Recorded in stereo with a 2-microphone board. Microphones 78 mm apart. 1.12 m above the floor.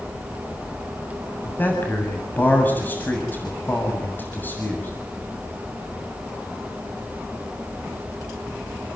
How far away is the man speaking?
About 7.5 m.